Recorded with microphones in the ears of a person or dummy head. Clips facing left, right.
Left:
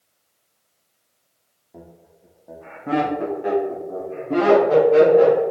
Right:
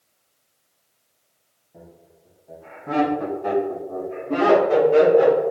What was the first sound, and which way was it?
Laughter, 85° left.